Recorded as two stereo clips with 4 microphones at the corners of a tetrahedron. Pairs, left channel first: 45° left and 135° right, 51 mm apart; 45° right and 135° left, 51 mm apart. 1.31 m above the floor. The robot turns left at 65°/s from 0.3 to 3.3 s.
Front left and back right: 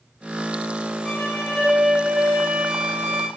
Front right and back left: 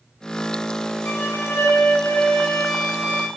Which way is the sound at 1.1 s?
25° right.